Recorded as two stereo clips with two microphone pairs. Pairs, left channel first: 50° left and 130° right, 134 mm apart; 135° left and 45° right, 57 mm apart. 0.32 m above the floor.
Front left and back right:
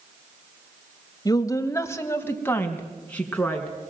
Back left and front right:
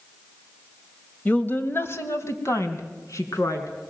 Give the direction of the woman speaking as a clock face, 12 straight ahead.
9 o'clock.